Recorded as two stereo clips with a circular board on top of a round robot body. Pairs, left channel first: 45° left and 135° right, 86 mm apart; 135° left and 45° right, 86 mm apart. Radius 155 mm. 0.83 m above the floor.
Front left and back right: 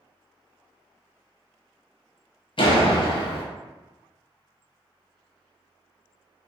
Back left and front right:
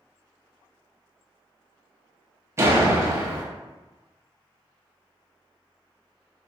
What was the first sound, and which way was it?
A door slam, 15° left.